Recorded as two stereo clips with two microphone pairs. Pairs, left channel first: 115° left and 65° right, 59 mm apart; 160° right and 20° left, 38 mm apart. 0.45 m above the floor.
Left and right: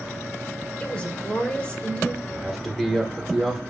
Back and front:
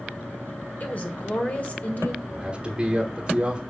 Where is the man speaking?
25° left, 1.3 m.